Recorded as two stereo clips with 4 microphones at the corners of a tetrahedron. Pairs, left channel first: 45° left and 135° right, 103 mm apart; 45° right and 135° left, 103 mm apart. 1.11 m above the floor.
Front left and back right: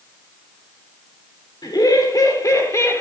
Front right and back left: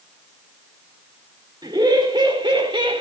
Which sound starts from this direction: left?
Laughter, at 1.6 s.